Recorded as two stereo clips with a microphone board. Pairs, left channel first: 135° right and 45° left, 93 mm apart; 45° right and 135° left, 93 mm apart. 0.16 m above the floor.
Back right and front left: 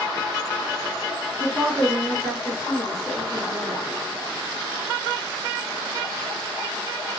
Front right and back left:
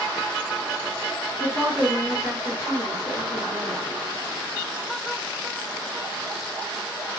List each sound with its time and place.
1.4 s a woman speaking: 95° left, 1.9 m; by 3.8 s 165° right, 1.5 m